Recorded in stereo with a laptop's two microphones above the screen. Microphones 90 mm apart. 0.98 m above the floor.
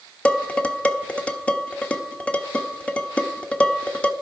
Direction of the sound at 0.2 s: 15° left (ahead or behind).